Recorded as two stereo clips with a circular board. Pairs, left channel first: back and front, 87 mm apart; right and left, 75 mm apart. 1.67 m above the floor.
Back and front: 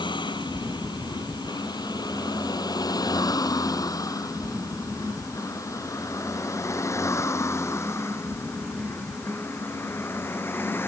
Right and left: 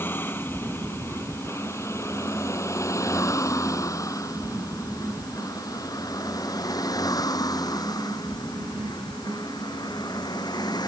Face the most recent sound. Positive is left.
turn(degrees=-115)